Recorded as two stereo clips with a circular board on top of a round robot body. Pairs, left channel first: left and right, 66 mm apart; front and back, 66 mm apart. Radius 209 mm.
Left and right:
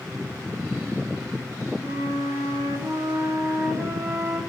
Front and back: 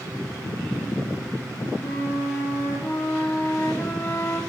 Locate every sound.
1.8 s a flute: 55° right, 1.2 m